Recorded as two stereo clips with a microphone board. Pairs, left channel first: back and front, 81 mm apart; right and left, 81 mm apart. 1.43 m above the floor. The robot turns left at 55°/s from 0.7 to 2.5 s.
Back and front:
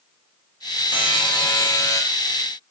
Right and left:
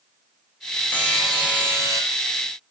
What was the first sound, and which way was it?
A buzzer, 165° right.